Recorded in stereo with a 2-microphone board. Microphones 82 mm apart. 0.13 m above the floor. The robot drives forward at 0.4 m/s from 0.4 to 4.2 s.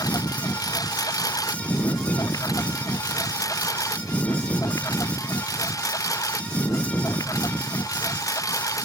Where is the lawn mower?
50° left (ahead or behind); by 8.8 s 45° left (ahead or behind).